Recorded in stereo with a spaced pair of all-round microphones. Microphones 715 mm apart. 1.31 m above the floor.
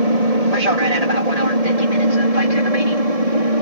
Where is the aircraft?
60° right (ahead or behind).